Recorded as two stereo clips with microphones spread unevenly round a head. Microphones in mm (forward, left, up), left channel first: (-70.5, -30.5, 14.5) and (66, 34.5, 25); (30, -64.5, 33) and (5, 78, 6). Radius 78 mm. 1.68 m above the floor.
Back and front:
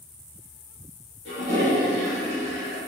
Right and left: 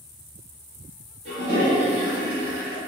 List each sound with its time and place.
1.2 s a toilet flushing: 60° left, 1.4 m